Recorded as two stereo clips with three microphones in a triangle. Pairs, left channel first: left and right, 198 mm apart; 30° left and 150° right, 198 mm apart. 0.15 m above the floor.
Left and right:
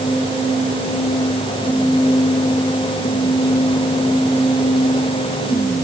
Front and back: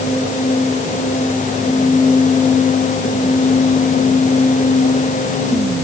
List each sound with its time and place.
Only background noise.